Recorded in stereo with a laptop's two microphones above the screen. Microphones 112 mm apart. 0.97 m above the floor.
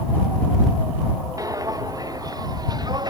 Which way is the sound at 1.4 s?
30° right (ahead or behind).